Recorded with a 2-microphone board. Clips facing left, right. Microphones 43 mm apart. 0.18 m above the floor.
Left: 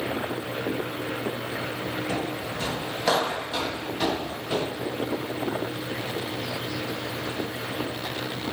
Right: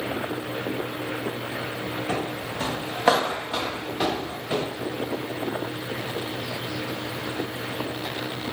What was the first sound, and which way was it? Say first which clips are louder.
Footsteps: right 1 dB; 50° right (ahead or behind).